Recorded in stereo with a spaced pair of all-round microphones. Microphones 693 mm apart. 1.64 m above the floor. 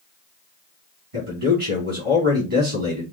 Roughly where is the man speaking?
Right.